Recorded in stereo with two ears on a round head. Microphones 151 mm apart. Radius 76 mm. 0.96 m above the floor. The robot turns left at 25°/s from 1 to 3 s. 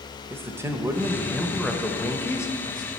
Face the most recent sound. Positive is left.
turn(degrees=145)